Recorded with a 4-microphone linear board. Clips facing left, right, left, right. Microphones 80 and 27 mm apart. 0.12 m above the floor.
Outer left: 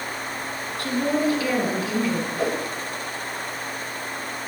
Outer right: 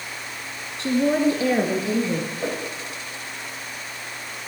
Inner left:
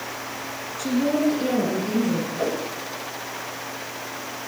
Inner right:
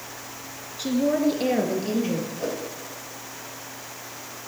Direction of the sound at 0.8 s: 25° right (ahead or behind).